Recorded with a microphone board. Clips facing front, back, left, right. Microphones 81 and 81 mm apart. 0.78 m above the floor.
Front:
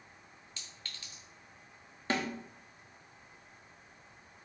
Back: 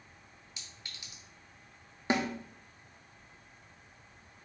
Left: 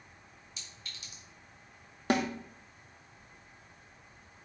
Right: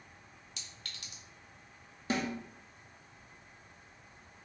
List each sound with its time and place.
0.6 s a clink: 105° right, 1.5 m
2.1 s a snare drum: 110° left, 0.8 m